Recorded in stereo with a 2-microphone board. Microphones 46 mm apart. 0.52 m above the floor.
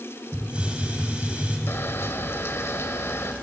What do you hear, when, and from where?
0.3 s a hiss: 25° right (ahead or behind), 3.5 m
1.7 s a camera shutter: 65° left (ahead or behind), 1.5 m